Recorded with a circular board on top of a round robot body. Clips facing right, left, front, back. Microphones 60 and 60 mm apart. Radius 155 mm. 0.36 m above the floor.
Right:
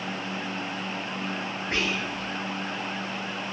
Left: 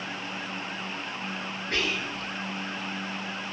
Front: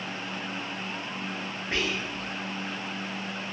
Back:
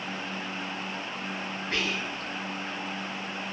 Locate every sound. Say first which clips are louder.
1.7 s whispering: right 1 dB, front 1 dB; 45° right, 1.5 m